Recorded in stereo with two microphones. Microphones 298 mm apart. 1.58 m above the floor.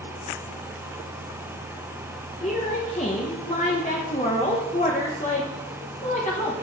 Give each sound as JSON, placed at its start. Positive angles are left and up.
{"t": 2.4, "sound": "a woman speaking", "side_deg": 25, "distance_m": 1.1}